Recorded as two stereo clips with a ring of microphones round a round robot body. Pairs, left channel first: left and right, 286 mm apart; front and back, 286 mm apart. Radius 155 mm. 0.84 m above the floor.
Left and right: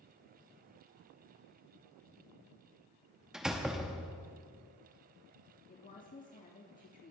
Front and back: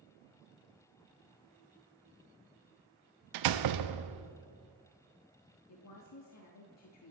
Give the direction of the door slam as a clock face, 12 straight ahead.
6 o'clock.